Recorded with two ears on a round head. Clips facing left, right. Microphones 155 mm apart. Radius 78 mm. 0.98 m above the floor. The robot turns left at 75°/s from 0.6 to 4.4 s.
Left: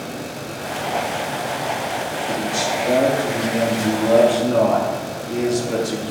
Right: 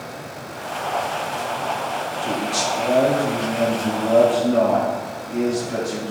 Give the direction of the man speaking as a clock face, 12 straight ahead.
4 o'clock.